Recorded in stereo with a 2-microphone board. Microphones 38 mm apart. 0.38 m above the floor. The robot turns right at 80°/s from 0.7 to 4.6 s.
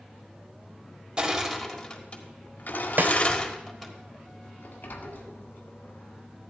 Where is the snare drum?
50° right (ahead or behind), 0.8 m; by 3.2 s 65° right (ahead or behind), 0.8 m.